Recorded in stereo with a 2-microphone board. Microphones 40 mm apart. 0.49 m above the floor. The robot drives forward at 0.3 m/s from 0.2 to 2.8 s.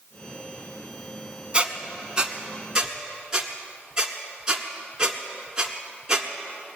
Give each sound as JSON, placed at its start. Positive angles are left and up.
{"t": 1.5, "sound": "a squeak", "side_deg": -25, "distance_m": 0.9}